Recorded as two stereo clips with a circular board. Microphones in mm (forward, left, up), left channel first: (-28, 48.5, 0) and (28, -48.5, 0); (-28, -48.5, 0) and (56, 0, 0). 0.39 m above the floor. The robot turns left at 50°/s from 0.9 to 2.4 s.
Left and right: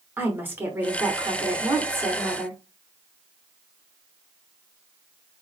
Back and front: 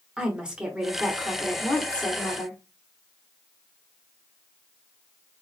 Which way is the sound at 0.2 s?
35° right.